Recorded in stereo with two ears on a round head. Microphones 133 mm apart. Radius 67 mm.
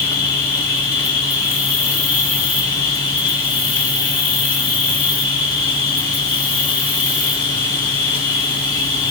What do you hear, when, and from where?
0.0 s an insect: 30° left (ahead or behind), 1.8 m